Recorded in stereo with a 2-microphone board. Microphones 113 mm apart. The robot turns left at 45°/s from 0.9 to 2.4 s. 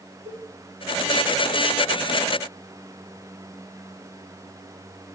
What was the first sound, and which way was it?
A cowbell, 75° right (ahead or behind).